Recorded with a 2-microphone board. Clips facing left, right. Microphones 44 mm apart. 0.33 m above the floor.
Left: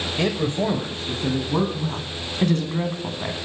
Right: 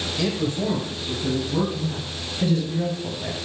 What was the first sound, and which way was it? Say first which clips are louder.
A man speaking: left 2 dB; 30° left (ahead or behind).